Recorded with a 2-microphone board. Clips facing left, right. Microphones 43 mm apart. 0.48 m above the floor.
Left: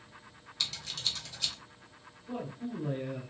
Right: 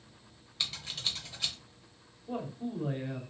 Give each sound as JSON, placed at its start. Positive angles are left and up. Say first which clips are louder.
{"t": 0.6, "sound": "scissors", "louder": "even", "side_deg": -15, "distance_m": 1.0}
{"t": 2.3, "sound": "a man speaking", "louder": "right 1 dB", "side_deg": -35, "distance_m": 1.2}